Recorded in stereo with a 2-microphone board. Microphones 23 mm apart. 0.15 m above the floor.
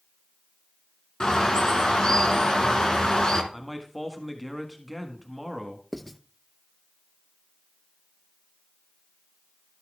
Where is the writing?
10° left (ahead or behind), 0.5 m.